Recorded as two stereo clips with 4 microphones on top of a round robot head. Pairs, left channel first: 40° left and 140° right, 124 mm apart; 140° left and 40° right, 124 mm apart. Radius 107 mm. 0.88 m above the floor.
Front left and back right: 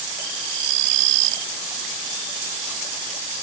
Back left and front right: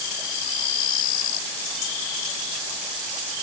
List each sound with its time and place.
Only background noise.